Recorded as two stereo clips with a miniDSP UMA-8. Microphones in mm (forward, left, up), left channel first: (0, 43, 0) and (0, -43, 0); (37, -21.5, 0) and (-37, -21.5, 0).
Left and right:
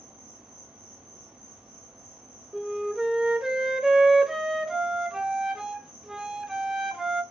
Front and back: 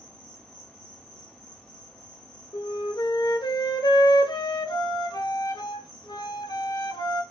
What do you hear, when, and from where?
0.0 s an insect: 65° right, 2 m
2.5 s a flute: 5° right, 0.6 m